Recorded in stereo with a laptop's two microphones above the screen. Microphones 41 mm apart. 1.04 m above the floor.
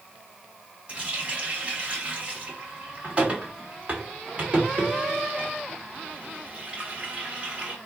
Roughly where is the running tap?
Right.